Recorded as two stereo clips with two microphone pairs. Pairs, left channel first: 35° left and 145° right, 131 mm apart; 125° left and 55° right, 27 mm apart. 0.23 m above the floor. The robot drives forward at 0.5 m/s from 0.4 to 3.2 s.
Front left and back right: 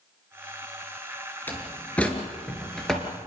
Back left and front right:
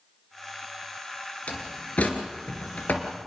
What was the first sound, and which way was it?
A door slam, 110° left.